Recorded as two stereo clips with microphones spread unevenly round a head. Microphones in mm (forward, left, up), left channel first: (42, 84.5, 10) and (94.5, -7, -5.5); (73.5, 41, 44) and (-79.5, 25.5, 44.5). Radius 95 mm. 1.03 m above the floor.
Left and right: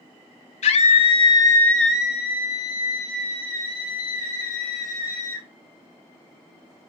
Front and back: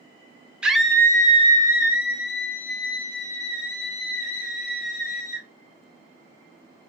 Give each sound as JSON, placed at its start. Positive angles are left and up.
{"t": 0.6, "sound": "a scream", "azimuth_deg": 100, "distance_m": 0.6}